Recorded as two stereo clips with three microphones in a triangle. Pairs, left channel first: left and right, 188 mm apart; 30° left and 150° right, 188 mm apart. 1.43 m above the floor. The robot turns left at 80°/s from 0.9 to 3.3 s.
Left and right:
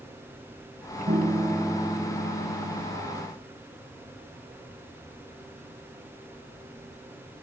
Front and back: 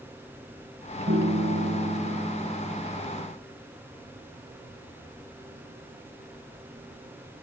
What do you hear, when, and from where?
1.1 s a piano: 130° right, 1.3 m; by 3.0 s 75° left, 1.3 m